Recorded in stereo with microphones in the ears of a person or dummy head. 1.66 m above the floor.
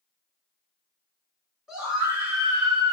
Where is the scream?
Centre (ahead or behind), 2 m; by 3.0 s 25° right (ahead or behind), 2 m.